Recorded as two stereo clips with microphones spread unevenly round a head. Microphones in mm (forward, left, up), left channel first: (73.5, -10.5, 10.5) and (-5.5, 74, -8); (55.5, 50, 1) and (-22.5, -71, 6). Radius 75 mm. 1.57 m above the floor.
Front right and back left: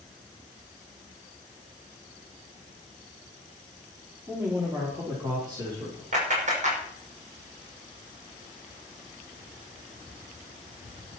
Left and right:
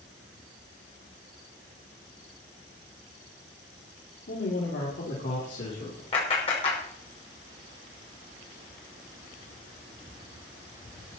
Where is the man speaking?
65° left, 4.5 m; by 6.0 s 85° left, 4.5 m.